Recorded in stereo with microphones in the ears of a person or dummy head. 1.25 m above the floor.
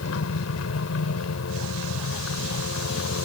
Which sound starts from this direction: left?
A helicopter, at 0.0 s.